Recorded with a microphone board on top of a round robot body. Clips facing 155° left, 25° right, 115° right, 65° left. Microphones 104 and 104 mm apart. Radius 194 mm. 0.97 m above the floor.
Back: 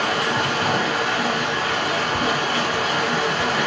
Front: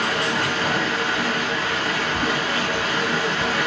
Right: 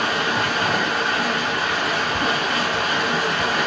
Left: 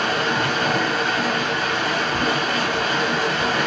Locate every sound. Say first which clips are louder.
0.0 s running water: back 1 dB, left 1 dB; 165° left, 1.1 m